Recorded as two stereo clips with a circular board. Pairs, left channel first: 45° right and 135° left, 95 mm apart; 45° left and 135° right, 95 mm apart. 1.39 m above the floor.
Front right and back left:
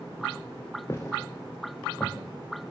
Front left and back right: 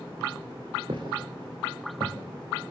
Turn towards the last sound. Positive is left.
turn(degrees=-115)